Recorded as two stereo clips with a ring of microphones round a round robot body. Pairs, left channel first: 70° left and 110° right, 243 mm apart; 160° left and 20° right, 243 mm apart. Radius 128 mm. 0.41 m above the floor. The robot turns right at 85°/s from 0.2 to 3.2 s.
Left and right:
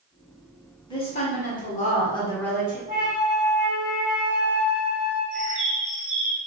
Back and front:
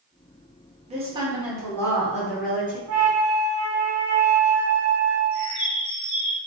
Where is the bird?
140° right, 2 m.